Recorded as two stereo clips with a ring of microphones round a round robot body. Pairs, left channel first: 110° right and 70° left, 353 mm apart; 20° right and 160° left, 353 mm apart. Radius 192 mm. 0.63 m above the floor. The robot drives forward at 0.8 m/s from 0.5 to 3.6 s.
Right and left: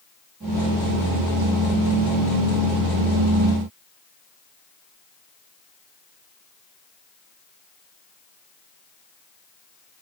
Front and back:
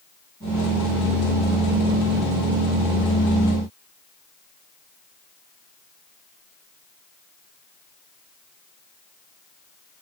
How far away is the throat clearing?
No throat clearing in this recording.